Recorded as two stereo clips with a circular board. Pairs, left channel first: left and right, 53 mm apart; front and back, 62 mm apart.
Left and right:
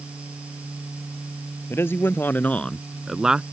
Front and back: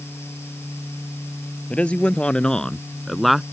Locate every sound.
1.7 s a man speaking: 65° left; by 3.4 s 100° right